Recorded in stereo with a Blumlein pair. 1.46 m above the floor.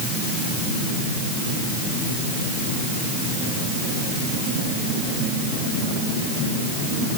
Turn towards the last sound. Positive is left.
No sound to turn to.